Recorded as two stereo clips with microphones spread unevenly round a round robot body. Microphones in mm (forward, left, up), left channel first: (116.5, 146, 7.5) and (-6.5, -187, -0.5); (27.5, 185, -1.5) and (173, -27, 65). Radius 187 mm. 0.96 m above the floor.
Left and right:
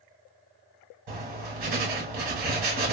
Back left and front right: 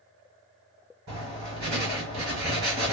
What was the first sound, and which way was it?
Writing, 125° right.